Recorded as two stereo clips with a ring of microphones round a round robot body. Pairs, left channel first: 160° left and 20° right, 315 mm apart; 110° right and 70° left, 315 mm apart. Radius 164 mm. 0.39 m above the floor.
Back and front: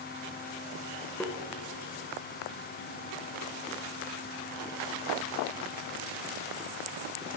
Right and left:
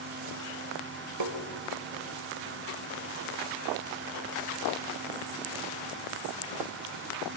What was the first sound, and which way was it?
Tapping, 70° left.